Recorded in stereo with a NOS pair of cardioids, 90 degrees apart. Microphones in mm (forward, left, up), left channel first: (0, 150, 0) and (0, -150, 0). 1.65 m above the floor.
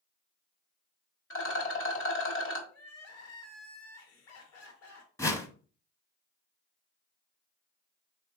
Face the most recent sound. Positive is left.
turn(degrees=10)